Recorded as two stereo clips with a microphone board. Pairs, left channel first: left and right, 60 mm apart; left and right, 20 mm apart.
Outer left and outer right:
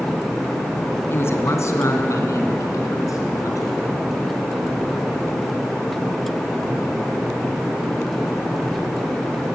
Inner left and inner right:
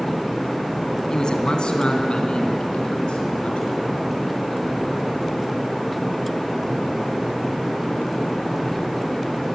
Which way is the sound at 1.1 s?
40° left (ahead or behind).